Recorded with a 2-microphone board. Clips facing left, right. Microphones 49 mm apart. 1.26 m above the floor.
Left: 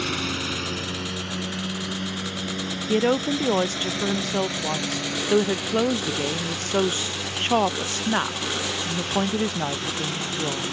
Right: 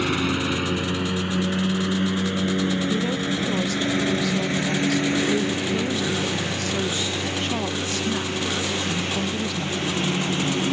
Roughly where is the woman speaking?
Left.